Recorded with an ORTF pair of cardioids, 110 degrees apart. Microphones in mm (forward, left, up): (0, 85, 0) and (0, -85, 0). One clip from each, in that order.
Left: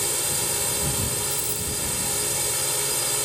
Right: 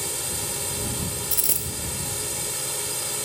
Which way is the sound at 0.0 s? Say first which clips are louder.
Left 3 dB; 20° left.